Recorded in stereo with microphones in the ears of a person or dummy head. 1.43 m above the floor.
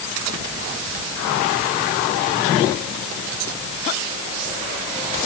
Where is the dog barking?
No dog barking in this recording.